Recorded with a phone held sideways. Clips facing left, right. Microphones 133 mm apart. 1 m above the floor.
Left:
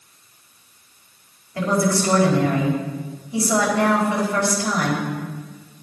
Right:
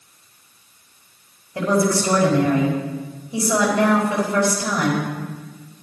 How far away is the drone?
I don't hear a drone.